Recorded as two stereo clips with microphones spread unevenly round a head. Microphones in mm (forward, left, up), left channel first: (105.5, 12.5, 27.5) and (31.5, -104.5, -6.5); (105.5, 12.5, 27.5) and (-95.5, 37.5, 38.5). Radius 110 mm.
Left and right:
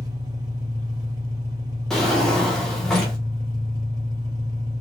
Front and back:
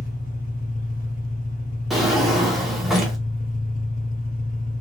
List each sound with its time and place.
0.0 s an engine running: 55° right, 1.6 m
1.9 s a drawer: 95° left, 0.7 m